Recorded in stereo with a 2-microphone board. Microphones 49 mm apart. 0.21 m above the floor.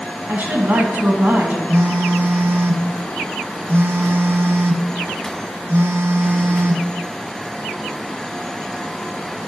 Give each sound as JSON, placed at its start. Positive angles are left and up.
{"t": 0.3, "sound": "a woman speaking", "side_deg": -40, "distance_m": 1.4}
{"t": 1.7, "sound": "a phone buzzing", "side_deg": -60, "distance_m": 0.5}